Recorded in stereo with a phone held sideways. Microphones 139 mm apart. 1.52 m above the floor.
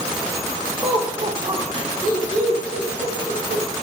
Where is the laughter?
35° right (ahead or behind), 2 m; by 3.6 s 45° right (ahead or behind), 4 m.